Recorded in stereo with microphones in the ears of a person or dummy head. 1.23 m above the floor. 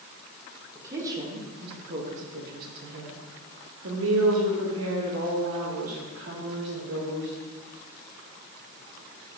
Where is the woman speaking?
10° right (ahead or behind), 1.6 m; by 7.3 s 80° right, 3.5 m.